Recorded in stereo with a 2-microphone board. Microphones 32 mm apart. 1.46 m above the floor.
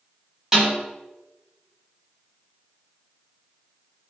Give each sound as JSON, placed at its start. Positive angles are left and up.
{"t": 0.5, "sound": "a snare drum", "side_deg": -15, "distance_m": 1.3}